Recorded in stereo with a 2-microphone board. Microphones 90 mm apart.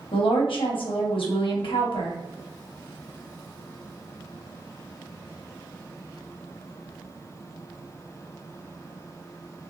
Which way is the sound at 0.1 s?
75° left (ahead or behind).